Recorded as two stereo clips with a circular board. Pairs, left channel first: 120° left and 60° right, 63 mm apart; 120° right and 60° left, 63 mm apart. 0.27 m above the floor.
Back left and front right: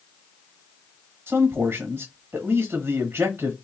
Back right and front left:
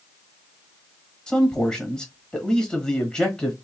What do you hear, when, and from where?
1.3 s a man speaking: 65° right, 1.0 m